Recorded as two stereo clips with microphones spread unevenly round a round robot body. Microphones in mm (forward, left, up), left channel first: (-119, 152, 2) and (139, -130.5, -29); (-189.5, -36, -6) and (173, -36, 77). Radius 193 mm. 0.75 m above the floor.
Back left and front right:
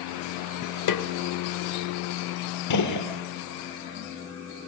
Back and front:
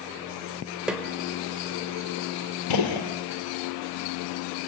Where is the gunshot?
Straight behind, 3 m.